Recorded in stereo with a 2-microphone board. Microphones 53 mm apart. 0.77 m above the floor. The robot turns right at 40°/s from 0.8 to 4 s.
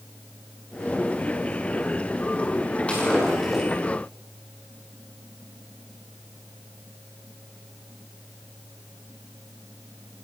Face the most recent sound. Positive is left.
turn(degrees=-155)